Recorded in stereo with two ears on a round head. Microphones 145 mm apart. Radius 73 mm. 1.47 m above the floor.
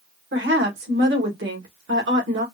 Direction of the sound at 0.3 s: 80° right.